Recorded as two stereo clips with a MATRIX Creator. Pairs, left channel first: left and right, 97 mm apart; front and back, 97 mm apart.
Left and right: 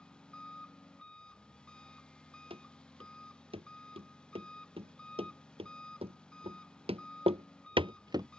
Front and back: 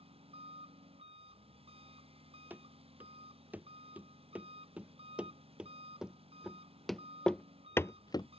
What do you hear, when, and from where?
0.0 s an engine running: 170° left
2.5 s running footsteps: 110° right; by 8.3 s 35° right